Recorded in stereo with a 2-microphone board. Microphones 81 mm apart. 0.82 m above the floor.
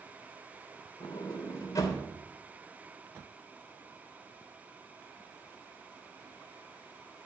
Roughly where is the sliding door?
Left.